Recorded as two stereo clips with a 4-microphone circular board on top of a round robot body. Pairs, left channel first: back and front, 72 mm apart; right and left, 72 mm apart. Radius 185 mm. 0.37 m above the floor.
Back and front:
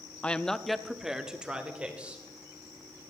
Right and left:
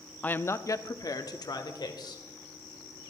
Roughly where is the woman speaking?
Behind right.